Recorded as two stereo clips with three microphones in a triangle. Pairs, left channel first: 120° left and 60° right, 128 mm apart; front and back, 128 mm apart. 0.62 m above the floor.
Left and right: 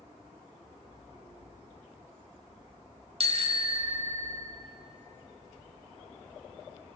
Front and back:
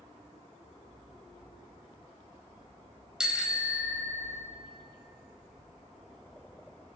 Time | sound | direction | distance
3.2 | a bicycle bell | 95° right | 2.5 m